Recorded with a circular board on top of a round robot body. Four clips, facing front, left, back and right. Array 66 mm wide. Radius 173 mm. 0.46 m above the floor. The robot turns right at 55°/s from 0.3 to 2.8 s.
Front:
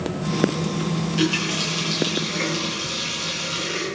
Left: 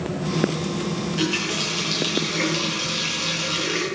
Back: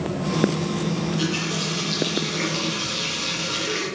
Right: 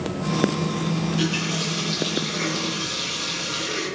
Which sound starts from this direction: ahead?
A running tap, at 1.0 s.